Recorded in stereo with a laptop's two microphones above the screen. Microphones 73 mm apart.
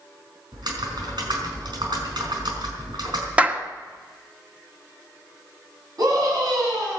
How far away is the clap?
About 1.8 m.